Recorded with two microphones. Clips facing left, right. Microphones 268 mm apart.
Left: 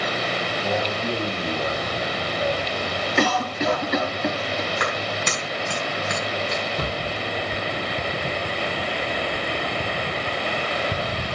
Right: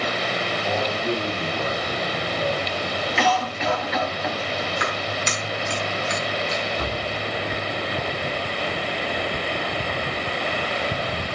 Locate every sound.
0.6 s a man speaking: 15° left (ahead or behind), 4 m
3.2 s a cough: 45° left (ahead or behind), 1.4 m
4.8 s a clap: 60° left (ahead or behind), 5.5 m
6.8 s a cupboard door: 65° left (ahead or behind), 7 m